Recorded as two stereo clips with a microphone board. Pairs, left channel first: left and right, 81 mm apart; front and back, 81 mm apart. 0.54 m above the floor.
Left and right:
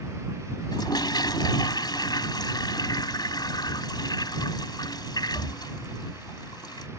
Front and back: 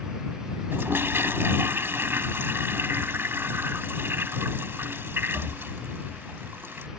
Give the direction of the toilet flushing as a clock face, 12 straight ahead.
8 o'clock.